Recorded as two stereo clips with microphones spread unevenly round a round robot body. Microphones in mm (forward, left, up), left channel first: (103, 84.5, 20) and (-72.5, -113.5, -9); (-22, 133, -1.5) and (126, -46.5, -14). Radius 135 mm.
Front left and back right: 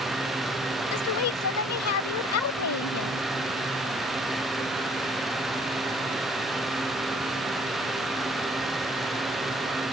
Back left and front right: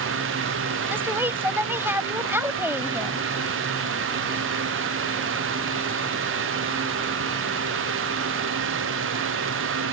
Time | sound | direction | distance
0.9 | a woman speaking | 30° left | ?